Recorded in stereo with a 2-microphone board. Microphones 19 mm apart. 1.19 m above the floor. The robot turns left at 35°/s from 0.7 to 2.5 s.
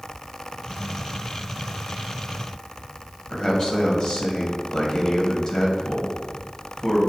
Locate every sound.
3.3 s a man speaking: 40° left (ahead or behind), 1.7 m